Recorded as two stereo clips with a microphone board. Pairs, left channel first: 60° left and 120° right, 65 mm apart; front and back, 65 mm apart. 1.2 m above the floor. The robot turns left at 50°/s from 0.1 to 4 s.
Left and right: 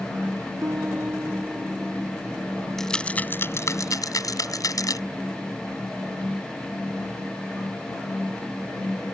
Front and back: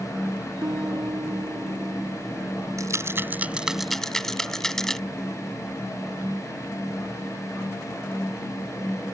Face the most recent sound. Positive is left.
turn(degrees=85)